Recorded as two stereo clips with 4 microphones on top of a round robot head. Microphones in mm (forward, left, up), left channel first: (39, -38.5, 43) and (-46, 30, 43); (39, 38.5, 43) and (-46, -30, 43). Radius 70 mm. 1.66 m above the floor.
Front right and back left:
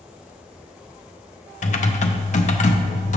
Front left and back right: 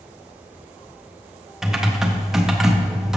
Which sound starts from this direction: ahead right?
Typing on a keyboard, at 1.6 s.